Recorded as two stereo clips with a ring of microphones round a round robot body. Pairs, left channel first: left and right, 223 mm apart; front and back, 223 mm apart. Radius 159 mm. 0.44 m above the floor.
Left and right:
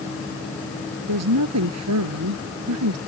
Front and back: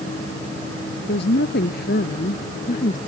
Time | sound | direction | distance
1.1 | a woman speaking | 60° right | ?